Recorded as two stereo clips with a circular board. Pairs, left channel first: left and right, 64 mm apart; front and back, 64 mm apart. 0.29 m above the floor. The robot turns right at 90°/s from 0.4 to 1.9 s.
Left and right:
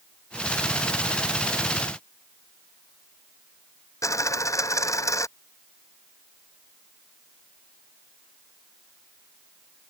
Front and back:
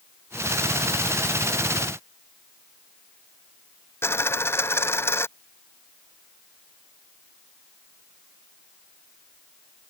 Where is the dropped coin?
55° left.